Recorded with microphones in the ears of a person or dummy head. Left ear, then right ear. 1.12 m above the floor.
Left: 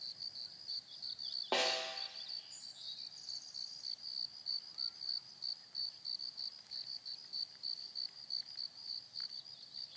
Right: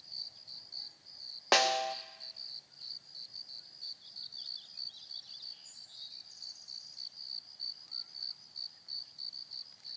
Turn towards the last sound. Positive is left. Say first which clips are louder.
# right 8 dB
turn(degrees=-55)  # may be behind; listen again after turning